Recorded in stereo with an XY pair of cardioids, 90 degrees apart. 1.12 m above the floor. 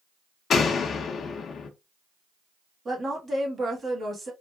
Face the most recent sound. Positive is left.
turn(degrees=-35)